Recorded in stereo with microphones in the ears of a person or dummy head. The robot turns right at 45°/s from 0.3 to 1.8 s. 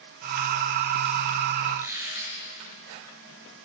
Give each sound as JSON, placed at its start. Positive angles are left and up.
{"t": 1.7, "sound": "a squeak", "side_deg": -5, "distance_m": 8.0}